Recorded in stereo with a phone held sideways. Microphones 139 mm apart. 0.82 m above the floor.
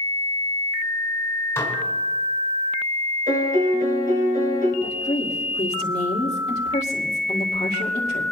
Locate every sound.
1.6 s dishes clattering: 20° left (ahead or behind), 3 m
3.3 s a piano: 75° right (ahead or behind), 4 m
4.8 s a woman speaking: 45° left (ahead or behind), 2 m